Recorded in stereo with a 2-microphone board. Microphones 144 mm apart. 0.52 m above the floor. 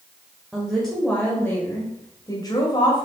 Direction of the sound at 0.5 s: 5° right (ahead or behind).